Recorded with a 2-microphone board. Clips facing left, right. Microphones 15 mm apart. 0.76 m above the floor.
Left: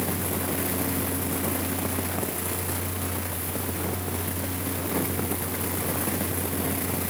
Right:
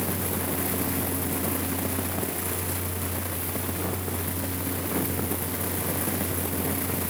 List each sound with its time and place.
Only background noise.